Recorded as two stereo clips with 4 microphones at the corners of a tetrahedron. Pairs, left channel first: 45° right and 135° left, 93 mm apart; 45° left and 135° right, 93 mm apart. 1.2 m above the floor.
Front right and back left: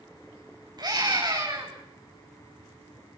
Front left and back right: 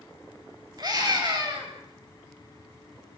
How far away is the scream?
About 7 m.